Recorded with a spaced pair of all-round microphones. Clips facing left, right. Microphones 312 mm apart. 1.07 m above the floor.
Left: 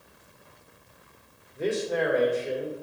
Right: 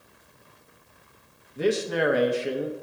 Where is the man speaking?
80° right, 0.9 m.